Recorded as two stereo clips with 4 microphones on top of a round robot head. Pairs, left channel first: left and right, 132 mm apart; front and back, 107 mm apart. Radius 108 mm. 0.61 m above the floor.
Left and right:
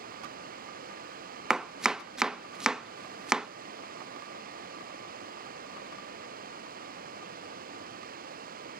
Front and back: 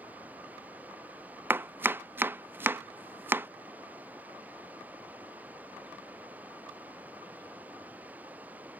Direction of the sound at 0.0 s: 100° right.